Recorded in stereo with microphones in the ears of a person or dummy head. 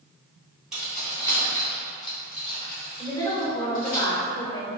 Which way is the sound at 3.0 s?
30° left (ahead or behind).